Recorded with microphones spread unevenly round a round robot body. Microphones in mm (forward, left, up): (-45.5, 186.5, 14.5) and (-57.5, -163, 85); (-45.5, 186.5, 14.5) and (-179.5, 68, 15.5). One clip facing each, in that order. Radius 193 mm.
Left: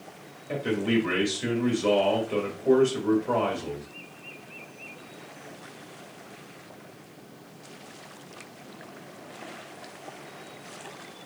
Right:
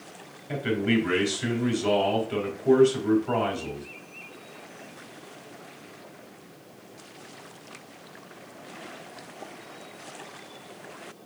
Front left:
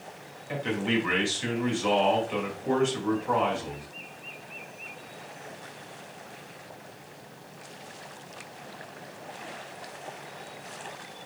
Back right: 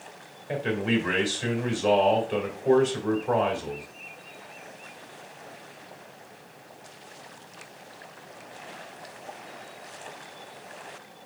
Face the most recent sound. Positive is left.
turn(degrees=-175)